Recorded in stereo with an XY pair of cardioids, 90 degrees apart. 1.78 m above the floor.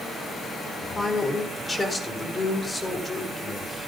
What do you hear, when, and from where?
0.9 s a man speaking: 25° left, 5 m